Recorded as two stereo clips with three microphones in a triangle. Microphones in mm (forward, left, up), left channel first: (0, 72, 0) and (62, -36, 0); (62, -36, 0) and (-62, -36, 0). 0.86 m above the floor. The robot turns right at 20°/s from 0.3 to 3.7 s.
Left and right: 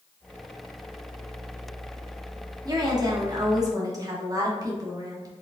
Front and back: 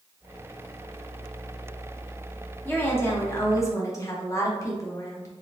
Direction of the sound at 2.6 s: 60° right.